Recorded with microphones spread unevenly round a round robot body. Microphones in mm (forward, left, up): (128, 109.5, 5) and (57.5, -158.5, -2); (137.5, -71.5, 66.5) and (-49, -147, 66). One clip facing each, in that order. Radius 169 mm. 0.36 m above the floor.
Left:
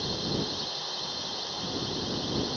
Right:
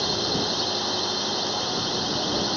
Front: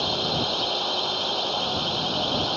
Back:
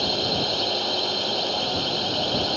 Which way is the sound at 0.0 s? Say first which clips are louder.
Right 5 dB, back 1 dB; 90° right.